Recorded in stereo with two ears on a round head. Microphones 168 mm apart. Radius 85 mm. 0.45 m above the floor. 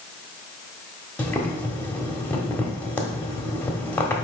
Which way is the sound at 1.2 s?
10° left (ahead or behind).